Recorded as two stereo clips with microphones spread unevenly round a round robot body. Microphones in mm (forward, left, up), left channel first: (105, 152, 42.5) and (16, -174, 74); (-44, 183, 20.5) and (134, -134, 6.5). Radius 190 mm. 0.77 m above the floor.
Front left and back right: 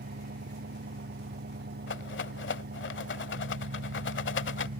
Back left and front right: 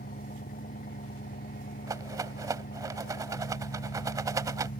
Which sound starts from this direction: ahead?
A rattle, at 1.9 s.